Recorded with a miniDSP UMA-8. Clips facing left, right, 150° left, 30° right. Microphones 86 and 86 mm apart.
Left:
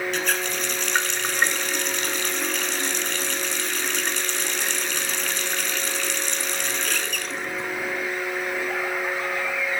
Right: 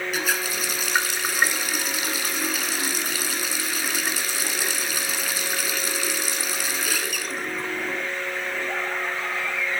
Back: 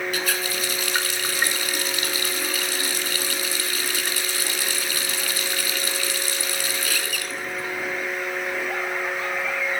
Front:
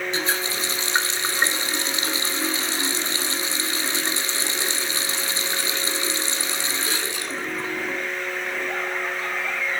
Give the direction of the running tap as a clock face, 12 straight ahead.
1 o'clock.